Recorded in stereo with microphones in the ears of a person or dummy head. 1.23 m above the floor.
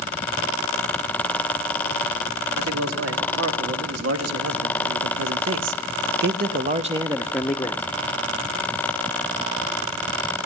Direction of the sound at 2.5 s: 80° right.